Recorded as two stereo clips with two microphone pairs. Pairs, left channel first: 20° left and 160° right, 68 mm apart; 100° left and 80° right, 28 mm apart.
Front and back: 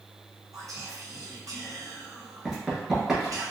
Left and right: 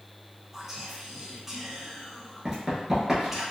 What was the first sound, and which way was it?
Whispering, 160° right.